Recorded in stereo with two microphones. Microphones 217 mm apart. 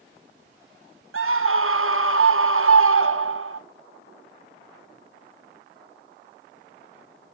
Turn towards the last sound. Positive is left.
turn(degrees=-75)  # may be behind; listen again after turning